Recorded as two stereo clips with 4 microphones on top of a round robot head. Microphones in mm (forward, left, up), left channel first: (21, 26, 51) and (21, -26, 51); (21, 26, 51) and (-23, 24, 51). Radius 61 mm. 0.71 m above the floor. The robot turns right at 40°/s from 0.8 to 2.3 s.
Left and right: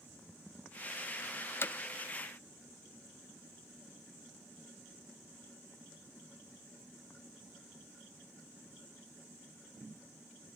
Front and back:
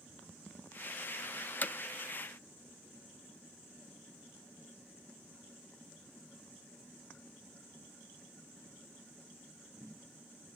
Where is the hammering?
50° left, 0.7 m; by 1.8 s 55° left, 0.7 m.